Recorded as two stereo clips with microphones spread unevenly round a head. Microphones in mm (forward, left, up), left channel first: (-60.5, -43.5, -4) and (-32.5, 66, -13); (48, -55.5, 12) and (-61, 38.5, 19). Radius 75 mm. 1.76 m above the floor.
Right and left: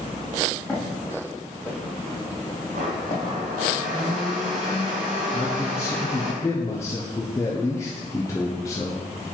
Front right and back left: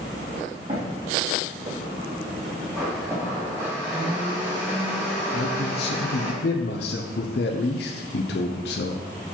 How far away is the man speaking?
About 0.6 m.